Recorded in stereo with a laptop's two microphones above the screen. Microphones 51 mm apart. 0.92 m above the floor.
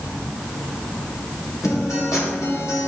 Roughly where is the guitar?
Left.